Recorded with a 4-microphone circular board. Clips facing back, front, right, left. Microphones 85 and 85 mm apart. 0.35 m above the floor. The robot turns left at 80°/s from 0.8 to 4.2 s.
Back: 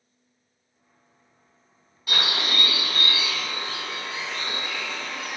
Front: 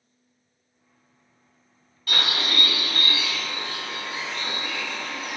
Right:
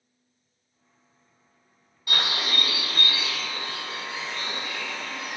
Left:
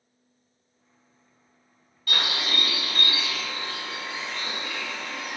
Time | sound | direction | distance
2.1 | a bird | 130° right | 1.5 m